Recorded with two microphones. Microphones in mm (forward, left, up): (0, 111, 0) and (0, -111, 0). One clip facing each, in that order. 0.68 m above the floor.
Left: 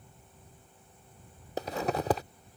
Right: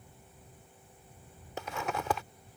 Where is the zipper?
35° left (ahead or behind).